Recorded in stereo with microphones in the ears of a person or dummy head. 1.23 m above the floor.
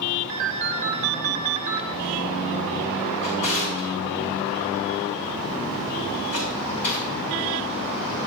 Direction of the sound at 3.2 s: 40° left (ahead or behind).